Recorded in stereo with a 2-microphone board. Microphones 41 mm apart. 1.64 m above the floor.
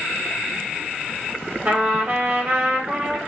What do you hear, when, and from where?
1.6 s a trumpet: 55° right (ahead or behind), 2.0 m